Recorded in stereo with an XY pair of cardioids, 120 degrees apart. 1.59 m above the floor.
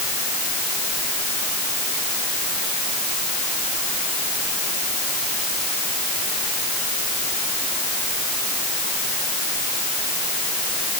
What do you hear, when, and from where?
Only background noise.